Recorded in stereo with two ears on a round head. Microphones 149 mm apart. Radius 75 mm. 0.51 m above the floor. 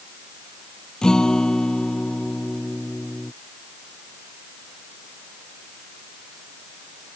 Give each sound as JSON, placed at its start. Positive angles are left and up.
{"t": 1.0, "sound": "a guitar", "side_deg": 5}